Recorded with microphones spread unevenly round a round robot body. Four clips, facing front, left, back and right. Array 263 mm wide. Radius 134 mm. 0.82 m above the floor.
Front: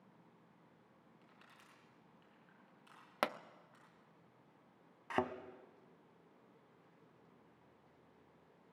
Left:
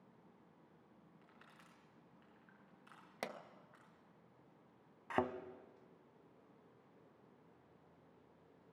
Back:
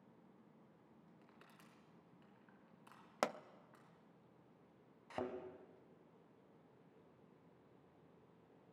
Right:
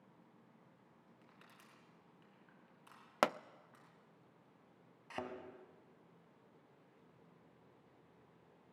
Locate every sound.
1.2 s crushing: 170° right, 4 m
3.2 s a pop: 70° right, 0.6 m
5.1 s a thud: 30° left, 1.3 m